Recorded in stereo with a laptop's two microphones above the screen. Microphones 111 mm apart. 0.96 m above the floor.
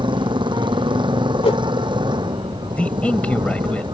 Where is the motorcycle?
45° right (ahead or behind).